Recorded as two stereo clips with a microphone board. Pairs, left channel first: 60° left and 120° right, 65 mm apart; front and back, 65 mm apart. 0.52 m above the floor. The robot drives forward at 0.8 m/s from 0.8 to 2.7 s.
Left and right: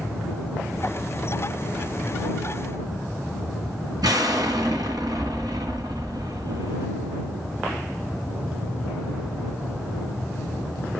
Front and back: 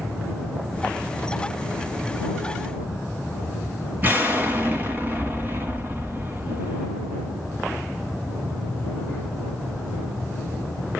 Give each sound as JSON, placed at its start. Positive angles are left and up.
{"t": 4.0, "sound": "an explosion", "azimuth_deg": -120, "distance_m": 1.8}